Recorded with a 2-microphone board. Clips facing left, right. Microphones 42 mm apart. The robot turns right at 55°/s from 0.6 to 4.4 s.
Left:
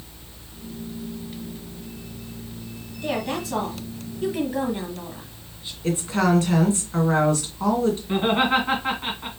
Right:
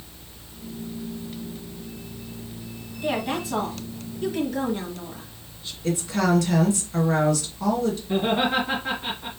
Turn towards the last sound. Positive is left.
turn(degrees=45)  # may be behind; listen again after turning